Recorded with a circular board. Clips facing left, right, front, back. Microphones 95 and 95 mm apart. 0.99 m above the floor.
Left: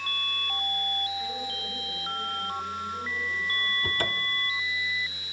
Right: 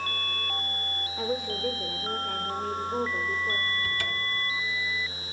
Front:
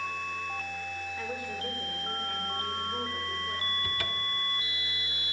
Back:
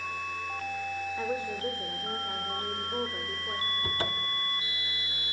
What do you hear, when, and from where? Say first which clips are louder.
1.2 s a woman speaking: right 5 dB, back 4 dB; 115° right, 3.5 m
3.8 s a cupboard door: left 1 dB, back 2 dB; 130° left, 1.5 m